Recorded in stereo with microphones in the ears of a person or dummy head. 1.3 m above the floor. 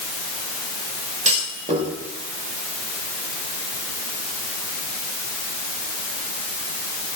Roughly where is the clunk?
Right.